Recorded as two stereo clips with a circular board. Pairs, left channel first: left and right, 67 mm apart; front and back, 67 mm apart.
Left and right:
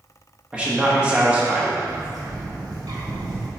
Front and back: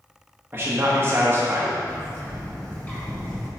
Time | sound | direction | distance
0.5 | a man speaking | 160° right | 1.0 m
1.9 | a bird | 70° right | 2.5 m